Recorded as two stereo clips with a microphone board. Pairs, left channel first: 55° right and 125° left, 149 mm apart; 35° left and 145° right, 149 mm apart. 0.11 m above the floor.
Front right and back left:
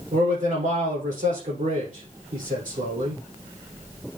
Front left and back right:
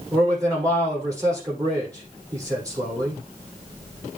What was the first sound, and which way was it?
A man speaking, 150° left.